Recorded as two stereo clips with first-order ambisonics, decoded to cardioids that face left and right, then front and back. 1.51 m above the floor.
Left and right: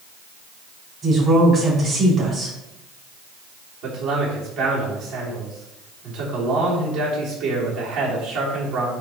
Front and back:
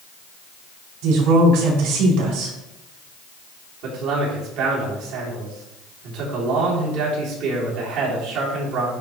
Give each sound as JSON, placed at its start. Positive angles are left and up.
{"t": 1.0, "sound": "a woman speaking", "azimuth_deg": -170, "distance_m": 4.0}
{"t": 3.8, "sound": "a man speaking", "azimuth_deg": -140, "distance_m": 3.5}